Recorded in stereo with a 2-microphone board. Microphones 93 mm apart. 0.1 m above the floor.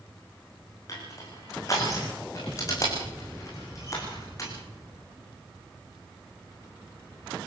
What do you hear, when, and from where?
0.9 s crushing: 35° left (ahead or behind), 8 m